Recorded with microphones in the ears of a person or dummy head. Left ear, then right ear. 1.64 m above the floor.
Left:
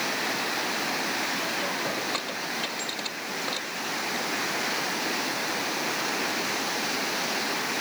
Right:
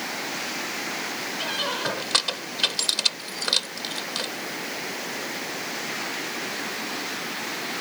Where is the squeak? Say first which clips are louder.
Right 2 dB; 60° right (ahead or behind).